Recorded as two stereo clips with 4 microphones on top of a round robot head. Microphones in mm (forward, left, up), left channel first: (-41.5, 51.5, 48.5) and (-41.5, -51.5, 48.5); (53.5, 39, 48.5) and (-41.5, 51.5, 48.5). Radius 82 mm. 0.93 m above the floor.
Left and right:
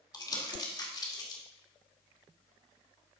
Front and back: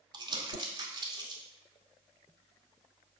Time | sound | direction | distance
0.1 | crumpling | 140° left | 2 m